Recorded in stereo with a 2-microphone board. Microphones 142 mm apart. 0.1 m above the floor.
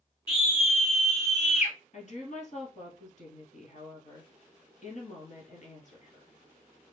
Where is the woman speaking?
55° left (ahead or behind), 1.9 m.